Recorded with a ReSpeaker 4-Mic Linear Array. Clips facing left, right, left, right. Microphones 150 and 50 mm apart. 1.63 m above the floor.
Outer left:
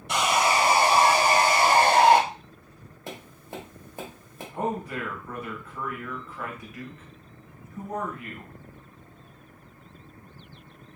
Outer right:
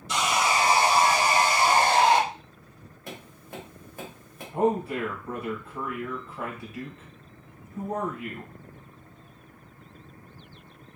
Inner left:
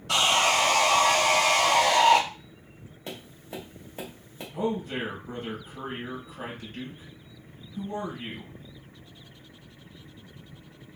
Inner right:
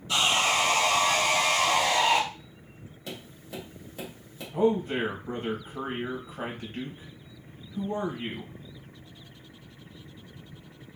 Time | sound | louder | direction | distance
0.1 | sawing | outer left 2 dB, inner left 2 dB | 65° left (ahead or behind) | 0.7 m
3.1 | tapping | outer left 2 dB, inner left 1 dB | 25° left (ahead or behind) | 1.4 m
4.5 | a man speaking | outer right 5 dB, inner right 5 dB | 30° right (ahead or behind) | 1.4 m